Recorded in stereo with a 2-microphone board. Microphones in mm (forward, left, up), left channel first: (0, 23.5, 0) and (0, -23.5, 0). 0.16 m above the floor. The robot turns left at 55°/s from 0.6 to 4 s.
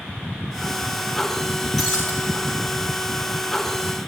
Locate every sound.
1.8 s breaking glass: 5° left (ahead or behind), 7 m; by 2.1 s 25° left (ahead or behind), 7 m